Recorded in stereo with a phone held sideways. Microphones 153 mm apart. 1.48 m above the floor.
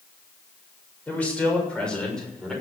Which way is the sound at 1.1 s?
10° left (ahead or behind).